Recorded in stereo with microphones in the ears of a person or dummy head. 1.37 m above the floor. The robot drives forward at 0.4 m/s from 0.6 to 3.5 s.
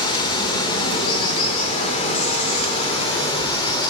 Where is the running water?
25° left (ahead or behind), 1.2 m.